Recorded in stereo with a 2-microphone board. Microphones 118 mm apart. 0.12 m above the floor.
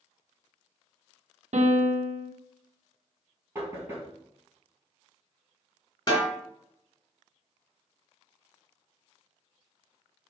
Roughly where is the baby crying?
I don't hear a baby crying.